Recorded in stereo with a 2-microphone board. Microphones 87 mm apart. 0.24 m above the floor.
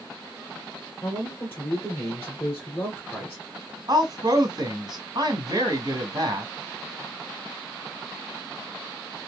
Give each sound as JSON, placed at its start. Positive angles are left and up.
{"t": 1.0, "sound": "a man speaking", "side_deg": 20, "distance_m": 2.5}
{"t": 3.9, "sound": "a woman speaking", "side_deg": -50, "distance_m": 1.6}